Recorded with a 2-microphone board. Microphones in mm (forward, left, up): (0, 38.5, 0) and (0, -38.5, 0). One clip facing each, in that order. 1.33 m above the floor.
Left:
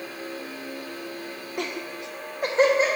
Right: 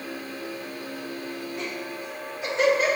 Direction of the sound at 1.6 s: 60° left (ahead or behind).